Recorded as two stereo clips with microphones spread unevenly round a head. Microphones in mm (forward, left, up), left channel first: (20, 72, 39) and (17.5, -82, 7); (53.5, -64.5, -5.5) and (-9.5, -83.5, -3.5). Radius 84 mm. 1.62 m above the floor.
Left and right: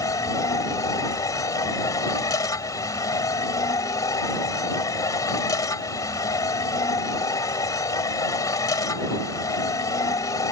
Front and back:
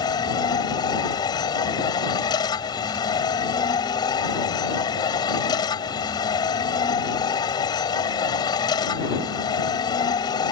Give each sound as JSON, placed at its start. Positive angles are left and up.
{"t": 0.0, "sound": "a machine running", "azimuth_deg": 20}